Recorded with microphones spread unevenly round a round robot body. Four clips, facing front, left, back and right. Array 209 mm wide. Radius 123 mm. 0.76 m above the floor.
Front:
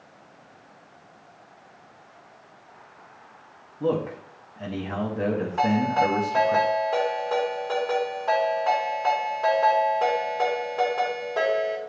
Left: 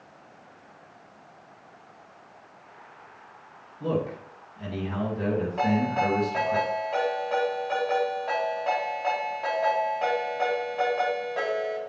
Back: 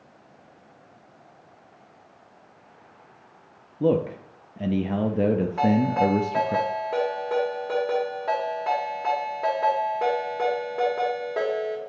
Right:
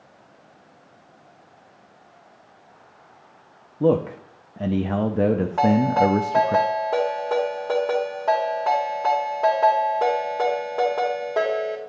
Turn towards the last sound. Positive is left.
turn(degrees=-115)